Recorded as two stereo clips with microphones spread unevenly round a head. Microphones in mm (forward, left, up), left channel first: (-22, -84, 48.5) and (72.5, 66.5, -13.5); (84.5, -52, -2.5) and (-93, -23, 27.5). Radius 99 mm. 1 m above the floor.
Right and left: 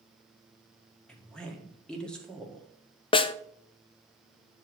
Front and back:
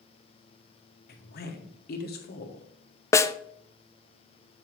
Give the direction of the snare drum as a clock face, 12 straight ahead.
2 o'clock.